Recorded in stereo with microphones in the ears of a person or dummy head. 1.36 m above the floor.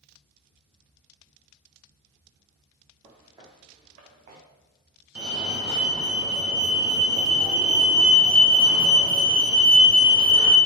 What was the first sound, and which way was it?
Footsteps, 10° right (ahead or behind).